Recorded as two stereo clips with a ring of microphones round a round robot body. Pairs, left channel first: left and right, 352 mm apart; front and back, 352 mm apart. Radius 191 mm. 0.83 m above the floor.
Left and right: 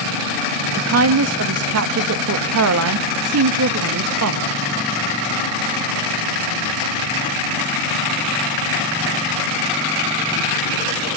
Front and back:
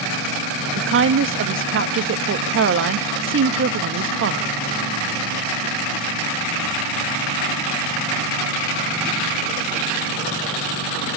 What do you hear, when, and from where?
0.8 s a woman speaking: 130° right, 1.1 m